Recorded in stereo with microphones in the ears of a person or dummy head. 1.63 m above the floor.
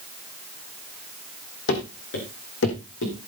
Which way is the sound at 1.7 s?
70° left (ahead or behind).